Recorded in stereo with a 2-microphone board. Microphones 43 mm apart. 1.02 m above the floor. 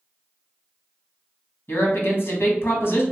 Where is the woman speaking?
60° left (ahead or behind), 1.0 m.